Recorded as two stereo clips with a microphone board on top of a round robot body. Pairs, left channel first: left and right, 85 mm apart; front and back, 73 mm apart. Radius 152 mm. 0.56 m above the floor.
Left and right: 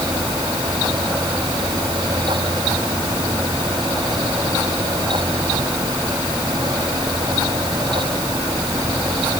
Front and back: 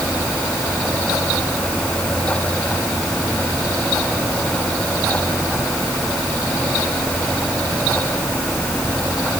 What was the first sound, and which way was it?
Only background noise.